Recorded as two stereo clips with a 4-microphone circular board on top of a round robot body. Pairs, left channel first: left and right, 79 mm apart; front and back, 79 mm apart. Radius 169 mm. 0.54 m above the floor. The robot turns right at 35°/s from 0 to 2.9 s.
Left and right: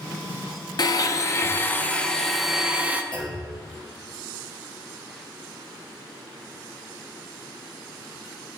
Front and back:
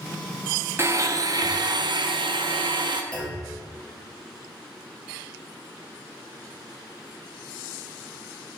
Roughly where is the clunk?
Left.